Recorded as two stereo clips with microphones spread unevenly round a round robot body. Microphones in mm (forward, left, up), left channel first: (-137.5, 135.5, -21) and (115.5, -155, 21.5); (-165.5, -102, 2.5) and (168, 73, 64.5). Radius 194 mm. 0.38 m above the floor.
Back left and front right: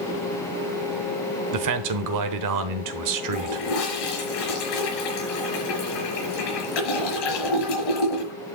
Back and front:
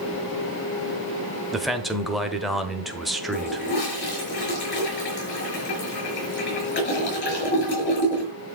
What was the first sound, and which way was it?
A man speaking, 70° right.